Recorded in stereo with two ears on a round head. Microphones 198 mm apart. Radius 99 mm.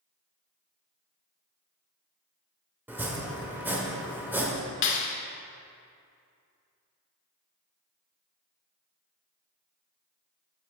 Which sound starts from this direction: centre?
Chopping, at 2.9 s.